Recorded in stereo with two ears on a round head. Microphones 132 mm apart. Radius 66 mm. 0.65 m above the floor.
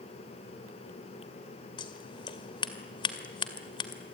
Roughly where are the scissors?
Left.